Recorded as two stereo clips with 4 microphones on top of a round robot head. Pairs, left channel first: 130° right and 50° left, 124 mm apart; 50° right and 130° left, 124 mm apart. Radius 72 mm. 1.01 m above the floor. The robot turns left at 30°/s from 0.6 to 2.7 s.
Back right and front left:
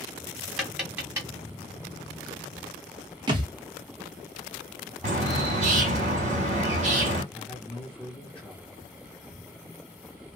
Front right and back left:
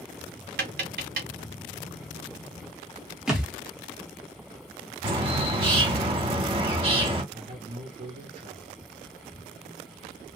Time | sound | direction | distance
0.6 | tapping | 135° left | 1.9 m
3.3 | a thud | 50° left | 0.6 m
5.0 | a bird | 80° left | 1.9 m
7.3 | a man speaking | 150° left | 1.0 m